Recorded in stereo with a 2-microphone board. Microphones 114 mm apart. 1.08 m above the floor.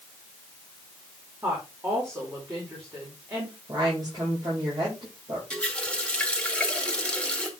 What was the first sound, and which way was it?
A woman speaking, 25° right (ahead or behind).